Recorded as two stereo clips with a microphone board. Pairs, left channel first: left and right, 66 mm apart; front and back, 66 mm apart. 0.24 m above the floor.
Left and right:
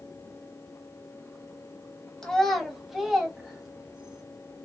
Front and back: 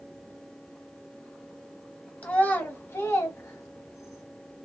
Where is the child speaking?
20° left, 0.9 m; by 4.2 s 20° right, 1.5 m.